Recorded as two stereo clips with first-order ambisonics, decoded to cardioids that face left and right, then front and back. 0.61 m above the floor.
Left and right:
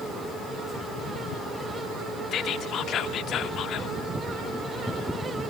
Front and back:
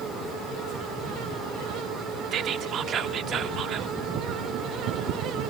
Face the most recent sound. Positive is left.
turn(degrees=135)